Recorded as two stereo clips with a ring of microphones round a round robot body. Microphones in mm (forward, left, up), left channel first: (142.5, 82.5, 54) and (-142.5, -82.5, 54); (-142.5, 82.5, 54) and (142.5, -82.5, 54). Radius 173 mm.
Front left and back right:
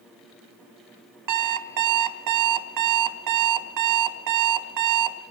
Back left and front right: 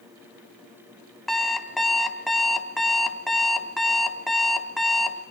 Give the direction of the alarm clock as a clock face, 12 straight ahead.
4 o'clock.